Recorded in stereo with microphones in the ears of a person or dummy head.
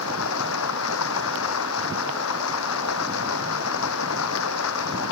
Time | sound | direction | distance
0.0 | running water | 85° left | ?